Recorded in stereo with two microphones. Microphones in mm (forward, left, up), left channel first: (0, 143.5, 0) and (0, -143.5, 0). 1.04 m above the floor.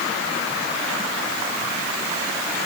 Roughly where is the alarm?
I don't hear an alarm.